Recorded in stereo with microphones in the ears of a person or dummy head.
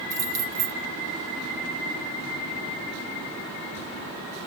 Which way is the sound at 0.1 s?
15° right (ahead or behind).